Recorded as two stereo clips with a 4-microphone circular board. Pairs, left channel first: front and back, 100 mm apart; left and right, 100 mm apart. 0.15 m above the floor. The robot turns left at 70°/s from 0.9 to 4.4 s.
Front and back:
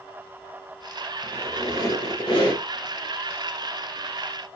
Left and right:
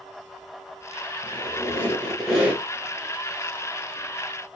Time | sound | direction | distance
1.2 | a squeak | 70° left | 1.4 m